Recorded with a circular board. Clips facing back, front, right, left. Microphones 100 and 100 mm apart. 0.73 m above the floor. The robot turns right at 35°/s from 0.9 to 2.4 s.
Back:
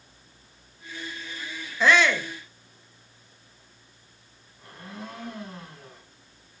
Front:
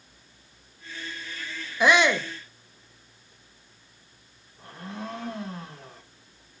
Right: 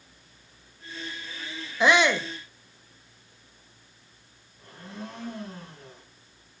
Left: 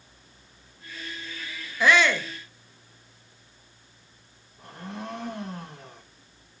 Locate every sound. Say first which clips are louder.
1.8 s a shout: front 1 dB, even; 55° right, 0.8 m; by 2.3 s 40° right, 0.8 m
4.6 s a blender: front 3 dB, left 3 dB; 60° left, 5 m